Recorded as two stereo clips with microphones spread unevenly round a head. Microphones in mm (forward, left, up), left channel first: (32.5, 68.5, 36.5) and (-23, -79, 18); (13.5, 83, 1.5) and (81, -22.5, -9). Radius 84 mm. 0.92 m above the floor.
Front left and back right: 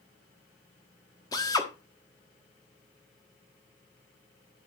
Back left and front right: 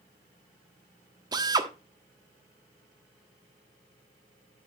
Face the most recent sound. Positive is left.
turn(degrees=0)